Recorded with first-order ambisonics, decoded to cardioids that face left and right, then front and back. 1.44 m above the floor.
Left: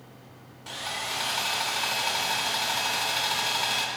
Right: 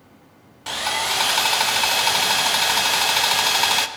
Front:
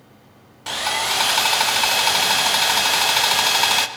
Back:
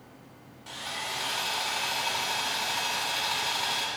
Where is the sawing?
40° right, 0.6 m.